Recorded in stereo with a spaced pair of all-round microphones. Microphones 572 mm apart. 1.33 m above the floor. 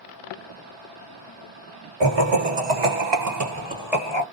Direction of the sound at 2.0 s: 80° right.